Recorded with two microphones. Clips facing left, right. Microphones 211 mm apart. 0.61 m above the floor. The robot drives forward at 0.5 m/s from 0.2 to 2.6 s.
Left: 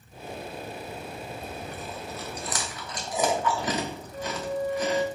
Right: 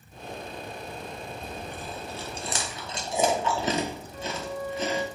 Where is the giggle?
No giggle in this recording.